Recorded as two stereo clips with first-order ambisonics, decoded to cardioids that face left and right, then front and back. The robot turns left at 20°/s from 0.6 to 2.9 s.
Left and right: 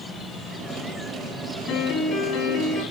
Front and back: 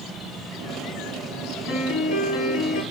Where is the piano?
35° left, 6.5 m; by 2.8 s 15° left, 6.5 m.